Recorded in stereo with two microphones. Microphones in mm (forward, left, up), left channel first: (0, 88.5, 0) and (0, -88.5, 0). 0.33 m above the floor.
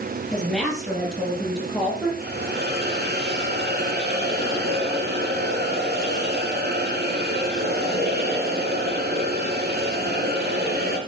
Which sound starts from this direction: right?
A hiss, at 2.2 s.